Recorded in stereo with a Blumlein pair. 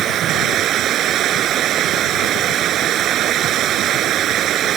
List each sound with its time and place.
0.0 s running water: 30° right